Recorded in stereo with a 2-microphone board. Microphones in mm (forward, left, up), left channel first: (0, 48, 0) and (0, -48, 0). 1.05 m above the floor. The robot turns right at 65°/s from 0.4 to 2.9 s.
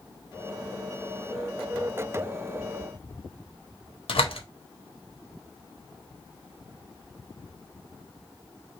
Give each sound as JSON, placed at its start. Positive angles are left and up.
{"t": 4.1, "sound": "a door slam", "side_deg": 80, "distance_m": 1.2}